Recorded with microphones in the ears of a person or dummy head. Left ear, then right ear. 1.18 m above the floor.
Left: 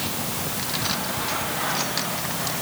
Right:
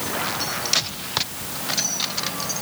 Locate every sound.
Only background noise.